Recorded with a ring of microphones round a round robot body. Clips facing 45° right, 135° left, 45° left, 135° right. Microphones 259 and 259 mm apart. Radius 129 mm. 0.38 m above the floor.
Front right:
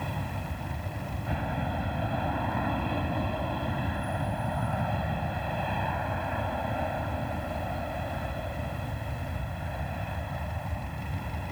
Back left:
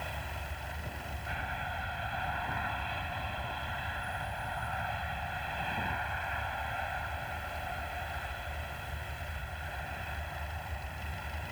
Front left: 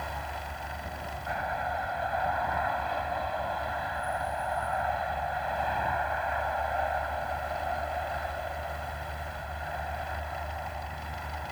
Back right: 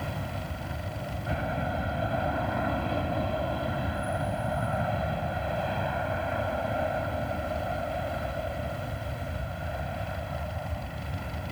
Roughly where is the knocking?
No knocking in this recording.